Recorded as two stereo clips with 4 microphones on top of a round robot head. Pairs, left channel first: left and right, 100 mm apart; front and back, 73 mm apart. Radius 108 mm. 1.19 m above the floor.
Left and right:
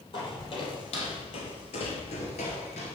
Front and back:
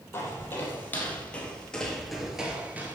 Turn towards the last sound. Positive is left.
turn(degrees=130)